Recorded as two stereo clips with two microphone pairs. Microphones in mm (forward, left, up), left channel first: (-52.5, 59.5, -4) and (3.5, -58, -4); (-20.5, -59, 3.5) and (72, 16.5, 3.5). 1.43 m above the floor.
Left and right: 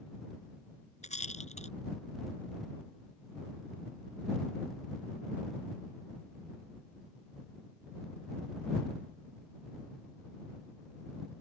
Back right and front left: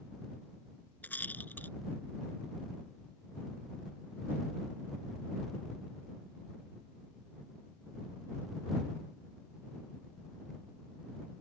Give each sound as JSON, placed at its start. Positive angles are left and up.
{"t": 1.0, "sound": "a rattle", "azimuth_deg": 145}